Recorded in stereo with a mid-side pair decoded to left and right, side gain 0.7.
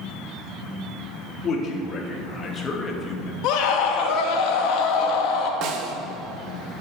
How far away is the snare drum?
About 1.3 m.